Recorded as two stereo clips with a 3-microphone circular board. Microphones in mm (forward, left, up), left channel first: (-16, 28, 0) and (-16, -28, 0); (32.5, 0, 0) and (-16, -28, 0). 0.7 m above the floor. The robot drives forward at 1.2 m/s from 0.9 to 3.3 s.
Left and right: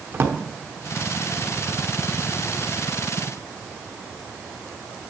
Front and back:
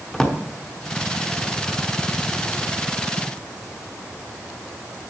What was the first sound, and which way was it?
A drawer, 45° right.